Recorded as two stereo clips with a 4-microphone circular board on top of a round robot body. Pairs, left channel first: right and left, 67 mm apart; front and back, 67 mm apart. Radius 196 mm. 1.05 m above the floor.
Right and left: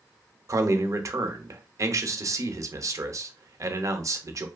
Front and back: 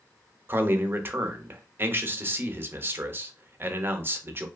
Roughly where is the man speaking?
Behind left.